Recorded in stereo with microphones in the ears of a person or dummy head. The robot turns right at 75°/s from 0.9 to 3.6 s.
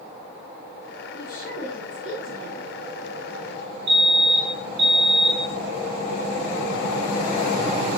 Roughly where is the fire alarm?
Right.